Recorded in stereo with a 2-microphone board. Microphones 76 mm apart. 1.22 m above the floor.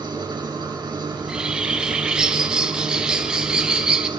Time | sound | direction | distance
0.0 | an engine running | 75° right (ahead or behind) | 9.5 m
1.1 | a bird | 10° right (ahead or behind) | 3.5 m